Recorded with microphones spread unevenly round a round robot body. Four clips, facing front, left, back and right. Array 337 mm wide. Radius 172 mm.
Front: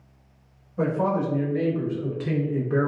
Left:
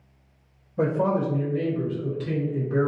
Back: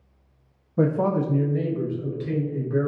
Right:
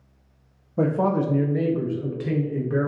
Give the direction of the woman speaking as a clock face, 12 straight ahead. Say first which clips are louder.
Right 1 dB, back 2 dB; 5 o'clock.